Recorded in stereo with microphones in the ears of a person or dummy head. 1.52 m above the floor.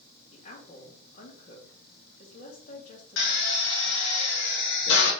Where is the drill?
70° left (ahead or behind), 1.6 m.